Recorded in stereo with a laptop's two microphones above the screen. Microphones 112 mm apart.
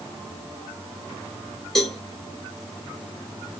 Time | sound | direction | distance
1.8 | a cowbell | centre (ahead or behind) | 1.4 m